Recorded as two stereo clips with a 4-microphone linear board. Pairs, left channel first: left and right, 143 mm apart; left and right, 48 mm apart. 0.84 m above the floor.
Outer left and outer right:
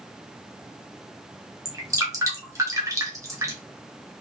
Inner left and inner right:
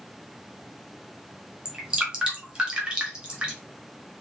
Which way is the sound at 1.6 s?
20° right (ahead or behind).